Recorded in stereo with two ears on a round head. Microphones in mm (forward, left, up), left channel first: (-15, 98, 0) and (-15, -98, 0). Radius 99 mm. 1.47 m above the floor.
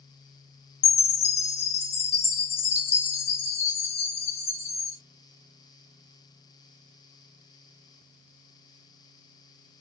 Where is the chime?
30° left (ahead or behind), 0.7 m.